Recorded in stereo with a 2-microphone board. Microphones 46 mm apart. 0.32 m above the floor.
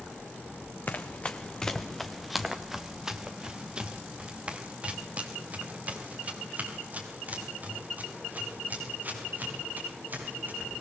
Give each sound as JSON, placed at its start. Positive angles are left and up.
{"t": 0.9, "sound": "running footsteps", "side_deg": 40, "distance_m": 1.4}